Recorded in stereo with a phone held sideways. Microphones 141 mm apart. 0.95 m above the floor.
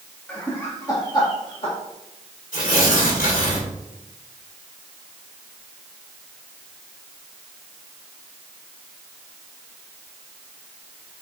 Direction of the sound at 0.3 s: 10° left (ahead or behind).